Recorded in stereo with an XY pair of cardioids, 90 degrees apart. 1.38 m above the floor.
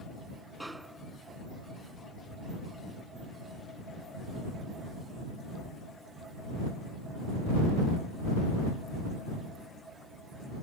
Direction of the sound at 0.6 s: 15° right.